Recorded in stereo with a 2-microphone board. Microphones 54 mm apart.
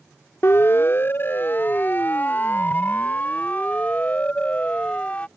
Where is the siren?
50° left (ahead or behind); by 5.3 s 20° left (ahead or behind).